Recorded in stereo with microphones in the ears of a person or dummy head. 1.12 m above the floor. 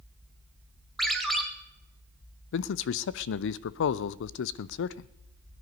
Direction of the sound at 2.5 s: 60° left (ahead or behind).